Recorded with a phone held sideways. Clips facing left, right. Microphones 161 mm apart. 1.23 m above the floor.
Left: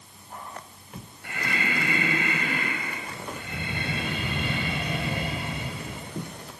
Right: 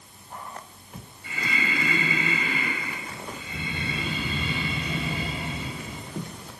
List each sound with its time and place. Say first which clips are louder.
1.2 s breathing: even; 55° left (ahead or behind), 5 m